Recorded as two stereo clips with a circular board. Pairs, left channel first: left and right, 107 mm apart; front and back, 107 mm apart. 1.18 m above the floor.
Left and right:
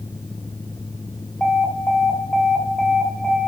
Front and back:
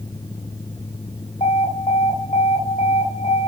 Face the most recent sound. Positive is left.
turn(degrees=10)